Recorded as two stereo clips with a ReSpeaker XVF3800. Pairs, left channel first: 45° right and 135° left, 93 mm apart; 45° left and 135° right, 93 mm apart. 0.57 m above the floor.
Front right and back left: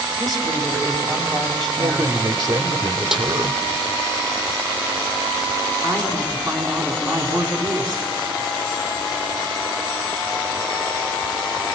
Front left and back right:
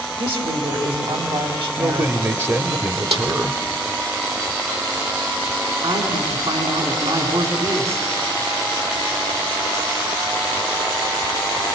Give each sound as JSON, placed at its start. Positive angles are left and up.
{"t": 0.2, "sound": "a woman speaking", "azimuth_deg": -130, "distance_m": 3.5}
{"t": 1.8, "sound": "a man speaking", "azimuth_deg": 170, "distance_m": 1.0}
{"t": 3.1, "sound": "a snare drum", "azimuth_deg": -140, "distance_m": 3.0}
{"t": 5.8, "sound": "a man speaking", "azimuth_deg": -130, "distance_m": 4.0}